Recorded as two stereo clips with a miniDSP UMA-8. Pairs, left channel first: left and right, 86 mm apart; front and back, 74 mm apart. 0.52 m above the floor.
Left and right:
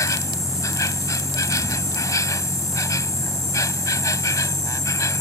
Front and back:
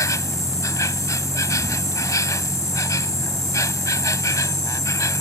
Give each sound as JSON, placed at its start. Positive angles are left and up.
{"t": 0.0, "sound": "an insect", "azimuth_deg": 40}